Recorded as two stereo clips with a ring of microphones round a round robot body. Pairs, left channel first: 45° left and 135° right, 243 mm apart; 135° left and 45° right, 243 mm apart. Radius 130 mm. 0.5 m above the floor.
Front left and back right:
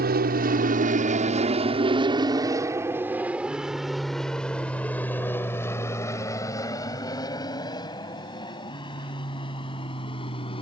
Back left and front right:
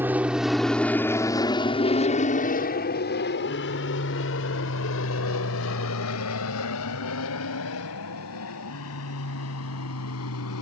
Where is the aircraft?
125° right; by 10.6 s 115° left.